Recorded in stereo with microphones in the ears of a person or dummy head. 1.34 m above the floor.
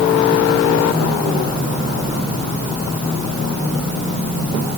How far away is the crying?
I don't hear crying.